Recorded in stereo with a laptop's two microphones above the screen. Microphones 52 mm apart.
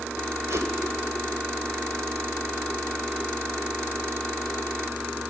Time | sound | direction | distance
0.5 | a whoosh | 75° right (ahead or behind) | 2.5 m